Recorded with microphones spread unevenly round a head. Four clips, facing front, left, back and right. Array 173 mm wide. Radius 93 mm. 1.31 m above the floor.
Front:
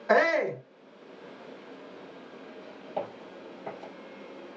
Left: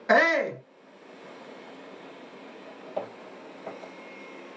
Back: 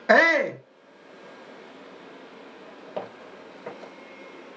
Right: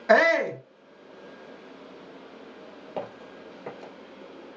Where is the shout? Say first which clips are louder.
Right 2 dB, back 4 dB; 170° left, 0.9 m.